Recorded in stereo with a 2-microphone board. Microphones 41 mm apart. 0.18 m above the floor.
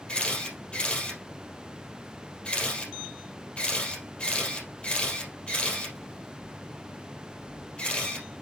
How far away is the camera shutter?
About 3 m.